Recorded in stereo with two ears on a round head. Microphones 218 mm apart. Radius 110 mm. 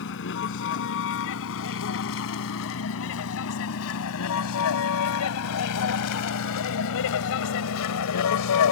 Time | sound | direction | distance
0.0 | a vehicle | 50° left (ahead or behind) | ?